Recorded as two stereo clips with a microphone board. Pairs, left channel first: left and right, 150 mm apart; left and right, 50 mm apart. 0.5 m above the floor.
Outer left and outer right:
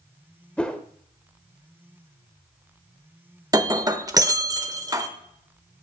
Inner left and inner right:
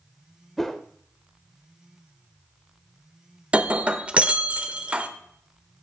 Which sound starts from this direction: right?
Breaking glass, at 3.5 s.